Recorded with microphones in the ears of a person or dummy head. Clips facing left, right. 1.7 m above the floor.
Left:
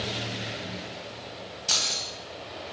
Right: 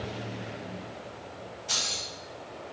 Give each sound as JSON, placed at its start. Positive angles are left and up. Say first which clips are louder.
{"t": 1.7, "sound": "keys jangling", "louder": "left 3 dB", "side_deg": 45, "distance_m": 0.8}